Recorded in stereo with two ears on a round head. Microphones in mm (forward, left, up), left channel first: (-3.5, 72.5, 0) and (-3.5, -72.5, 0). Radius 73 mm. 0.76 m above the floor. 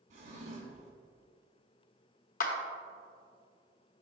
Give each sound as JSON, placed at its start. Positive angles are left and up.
{"t": 0.1, "sound": "a drawer", "side_deg": -45, "distance_m": 1.6}
{"t": 2.4, "sound": "a clap", "side_deg": 55, "distance_m": 0.9}